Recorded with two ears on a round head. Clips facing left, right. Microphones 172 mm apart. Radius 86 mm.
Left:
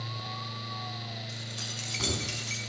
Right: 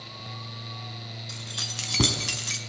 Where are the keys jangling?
70° right (ahead or behind), 5.5 m; by 2.6 s 65° right (ahead or behind), 4 m.